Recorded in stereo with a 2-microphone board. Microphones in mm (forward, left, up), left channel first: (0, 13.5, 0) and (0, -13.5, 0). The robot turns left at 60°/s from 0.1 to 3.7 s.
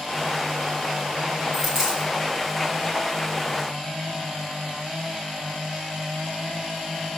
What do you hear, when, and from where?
1.5 s a dropped coin: 10° left (ahead or behind), 5 m; by 2.1 s 25° right (ahead or behind), 5 m